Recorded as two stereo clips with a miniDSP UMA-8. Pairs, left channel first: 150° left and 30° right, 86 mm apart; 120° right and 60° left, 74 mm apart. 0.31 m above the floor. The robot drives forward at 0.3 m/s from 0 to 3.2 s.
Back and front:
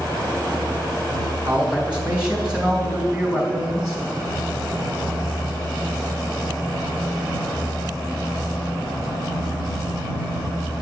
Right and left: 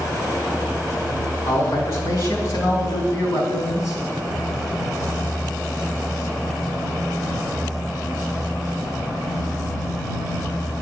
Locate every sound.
1.4 s a man speaking: 100° right, 2.5 m; by 4.0 s 110° right, 3 m